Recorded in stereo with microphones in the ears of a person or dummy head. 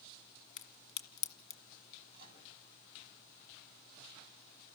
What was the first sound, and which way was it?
A crack, 65° left (ahead or behind).